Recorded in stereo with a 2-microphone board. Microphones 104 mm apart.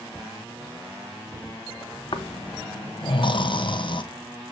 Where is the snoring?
50° left (ahead or behind), 0.9 m.